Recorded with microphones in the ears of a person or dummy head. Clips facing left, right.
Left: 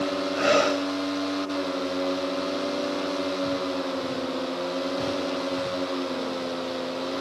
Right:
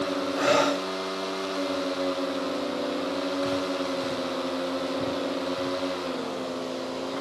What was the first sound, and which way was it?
Breathing, 25° left (ahead or behind).